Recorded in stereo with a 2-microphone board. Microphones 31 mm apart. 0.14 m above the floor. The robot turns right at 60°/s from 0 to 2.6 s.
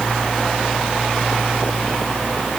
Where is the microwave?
I don't hear a microwave.